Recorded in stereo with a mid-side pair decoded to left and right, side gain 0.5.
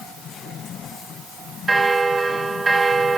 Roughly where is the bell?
Ahead right.